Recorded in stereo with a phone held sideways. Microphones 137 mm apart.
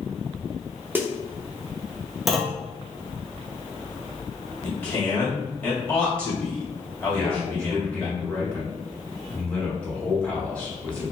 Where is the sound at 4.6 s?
15° left (ahead or behind), 1.5 m.